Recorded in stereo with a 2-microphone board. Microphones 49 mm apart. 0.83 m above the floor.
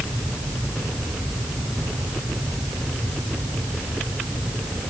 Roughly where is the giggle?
No giggle in this recording.